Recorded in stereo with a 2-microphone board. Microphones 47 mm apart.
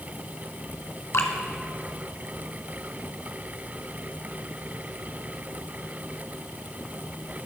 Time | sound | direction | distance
1.1 | dripping | 70° left (ahead or behind) | 1.9 m